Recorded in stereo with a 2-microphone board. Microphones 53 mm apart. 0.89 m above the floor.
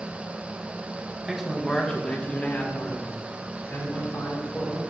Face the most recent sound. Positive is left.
turn(degrees=45)  # may be behind; listen again after turning